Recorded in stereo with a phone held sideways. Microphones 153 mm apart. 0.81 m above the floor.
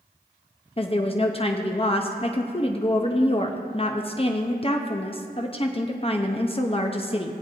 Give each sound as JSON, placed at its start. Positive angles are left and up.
{"t": 0.8, "sound": "a woman speaking", "side_deg": 35, "distance_m": 0.6}